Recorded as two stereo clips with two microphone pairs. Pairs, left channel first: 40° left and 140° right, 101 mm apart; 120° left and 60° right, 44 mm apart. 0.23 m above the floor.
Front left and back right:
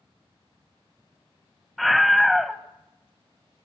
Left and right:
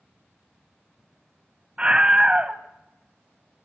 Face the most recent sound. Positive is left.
turn(degrees=-55)